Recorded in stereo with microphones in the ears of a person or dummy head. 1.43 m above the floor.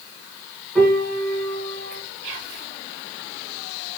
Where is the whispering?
65° right (ahead or behind), 1.1 m.